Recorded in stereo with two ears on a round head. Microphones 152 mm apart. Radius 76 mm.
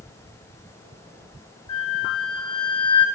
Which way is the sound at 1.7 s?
30° left (ahead or behind).